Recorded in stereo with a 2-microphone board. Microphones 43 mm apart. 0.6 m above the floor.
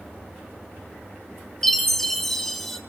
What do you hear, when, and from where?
1.6 s a chime: 5° left (ahead or behind), 1.4 m